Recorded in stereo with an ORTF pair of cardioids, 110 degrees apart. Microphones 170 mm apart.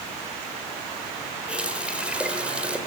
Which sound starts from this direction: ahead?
A running tap, at 1.5 s.